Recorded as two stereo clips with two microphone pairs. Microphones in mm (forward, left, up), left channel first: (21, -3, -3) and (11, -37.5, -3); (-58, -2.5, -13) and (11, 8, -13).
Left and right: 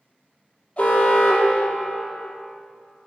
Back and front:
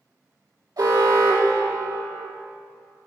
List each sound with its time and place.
0.8 s an alarm: 15° left, 2.5 m